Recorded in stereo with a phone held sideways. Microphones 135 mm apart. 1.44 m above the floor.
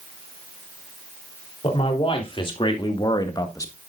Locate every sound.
1.6 s a man speaking: 45° left (ahead or behind), 3.5 m; by 3.8 s 20° left (ahead or behind), 1.3 m